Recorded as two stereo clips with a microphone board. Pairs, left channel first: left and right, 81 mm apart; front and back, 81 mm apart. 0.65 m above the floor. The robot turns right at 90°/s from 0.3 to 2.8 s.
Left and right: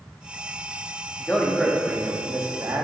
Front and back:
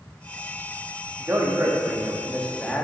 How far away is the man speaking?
About 0.9 m.